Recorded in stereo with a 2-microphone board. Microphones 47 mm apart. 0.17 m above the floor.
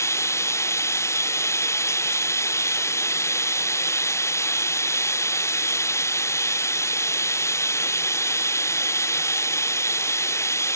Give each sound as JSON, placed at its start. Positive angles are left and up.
{"t": 0.0, "sound": "running water", "side_deg": 80}